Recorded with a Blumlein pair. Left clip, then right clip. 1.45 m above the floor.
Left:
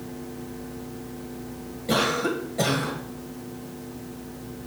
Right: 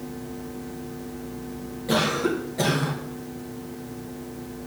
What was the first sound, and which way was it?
A cough, 5° right.